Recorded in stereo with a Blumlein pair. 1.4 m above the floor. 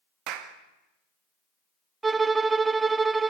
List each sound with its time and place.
0.3 s a clap: 40° right, 1.7 m
2.0 s a violin: 15° right, 0.5 m